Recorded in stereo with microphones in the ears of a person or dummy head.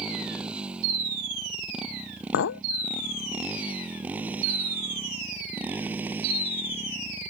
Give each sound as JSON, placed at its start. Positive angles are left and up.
{"t": 0.0, "sound": "a motorcycle", "side_deg": -10}
{"t": 2.3, "sound": "a clink", "side_deg": 60}